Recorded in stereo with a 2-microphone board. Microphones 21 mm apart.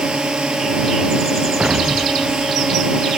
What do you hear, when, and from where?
0.0 s a drone: 60° right (ahead or behind)
1.6 s an explosion: 70° right (ahead or behind)